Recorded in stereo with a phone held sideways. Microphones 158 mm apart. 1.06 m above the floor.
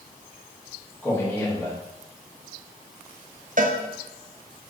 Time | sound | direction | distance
1.0 | a man speaking | 10° left (ahead or behind) | 2 m
3.6 | a cowbell | 55° right (ahead or behind) | 0.7 m